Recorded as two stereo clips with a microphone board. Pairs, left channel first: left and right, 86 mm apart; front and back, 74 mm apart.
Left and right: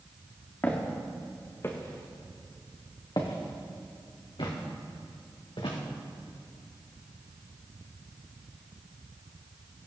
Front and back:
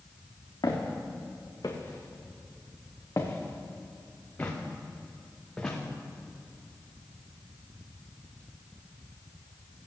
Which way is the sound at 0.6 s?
20° left.